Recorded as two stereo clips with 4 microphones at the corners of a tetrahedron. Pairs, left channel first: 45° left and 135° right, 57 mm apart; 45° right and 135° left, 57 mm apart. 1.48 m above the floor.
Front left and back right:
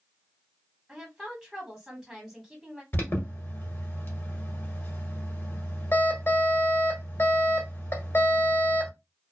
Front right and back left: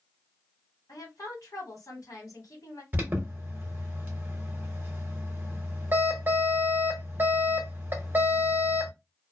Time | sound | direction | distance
0.9 | a woman speaking | 50° right | 1.4 m
2.9 | an alarm | 85° left | 0.9 m